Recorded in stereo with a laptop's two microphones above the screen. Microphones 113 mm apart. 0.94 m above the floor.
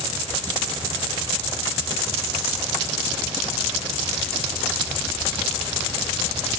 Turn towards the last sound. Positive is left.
No sound to turn to.